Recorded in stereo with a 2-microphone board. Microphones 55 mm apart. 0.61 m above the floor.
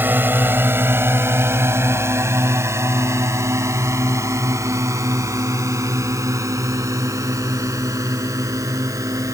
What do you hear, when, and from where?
0.0 s a drone: 35° right (ahead or behind); by 9.3 s 75° right (ahead or behind)